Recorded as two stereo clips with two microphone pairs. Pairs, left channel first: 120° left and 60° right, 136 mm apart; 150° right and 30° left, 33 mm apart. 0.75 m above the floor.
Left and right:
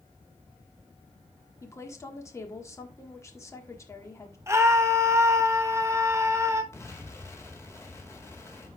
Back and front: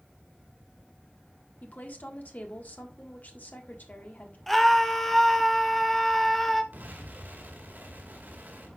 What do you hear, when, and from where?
1.6 s a woman speaking: 175° right, 1.7 m
4.5 s a scream: 75° right, 1.0 m
6.7 s an explosion: 50° left, 2.5 m